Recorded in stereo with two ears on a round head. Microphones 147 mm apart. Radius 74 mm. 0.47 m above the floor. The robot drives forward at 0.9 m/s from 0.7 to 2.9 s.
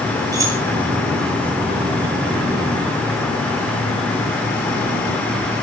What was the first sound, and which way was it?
Keys jangling, 20° right (ahead or behind).